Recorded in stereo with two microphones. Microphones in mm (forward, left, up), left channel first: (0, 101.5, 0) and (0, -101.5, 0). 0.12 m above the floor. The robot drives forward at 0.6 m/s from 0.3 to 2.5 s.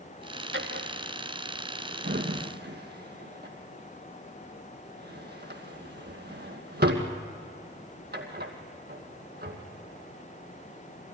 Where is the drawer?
70° right (ahead or behind), 2 m; by 9.6 s 55° right (ahead or behind), 2.5 m.